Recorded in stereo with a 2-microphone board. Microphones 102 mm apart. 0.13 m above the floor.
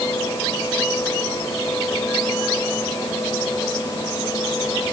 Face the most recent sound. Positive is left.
No sound to turn to.